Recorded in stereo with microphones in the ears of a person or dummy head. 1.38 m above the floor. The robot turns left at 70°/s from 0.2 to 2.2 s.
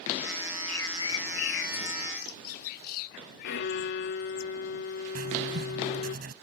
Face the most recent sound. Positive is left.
turn(degrees=-55)  # may be behind; listen again after turning